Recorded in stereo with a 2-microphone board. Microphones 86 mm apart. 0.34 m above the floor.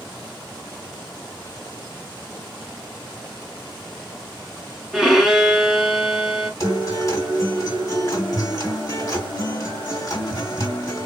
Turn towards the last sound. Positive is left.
turn(degrees=40)  # may be behind; listen again after turning